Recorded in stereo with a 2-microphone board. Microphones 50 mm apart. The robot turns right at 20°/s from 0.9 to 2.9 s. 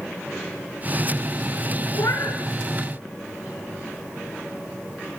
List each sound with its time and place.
1.9 s a cat meowing: 85° left, 3.5 m; by 2.4 s 80° left, 3.5 m